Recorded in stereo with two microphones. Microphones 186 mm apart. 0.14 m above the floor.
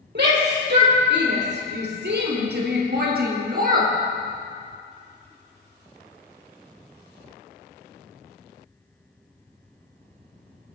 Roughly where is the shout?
Right.